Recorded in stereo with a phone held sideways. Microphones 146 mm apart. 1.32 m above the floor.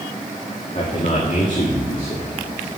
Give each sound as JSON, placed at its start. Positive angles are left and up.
{"t": 0.8, "sound": "a man speaking", "side_deg": 45, "distance_m": 2.0}